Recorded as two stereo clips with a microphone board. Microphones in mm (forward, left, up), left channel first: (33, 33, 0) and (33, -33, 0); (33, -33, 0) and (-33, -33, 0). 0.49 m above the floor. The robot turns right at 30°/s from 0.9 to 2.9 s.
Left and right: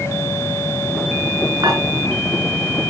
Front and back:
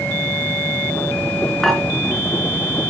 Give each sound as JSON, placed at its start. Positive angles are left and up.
{"t": 1.6, "sound": "dishes clattering", "azimuth_deg": -90, "distance_m": 4.5}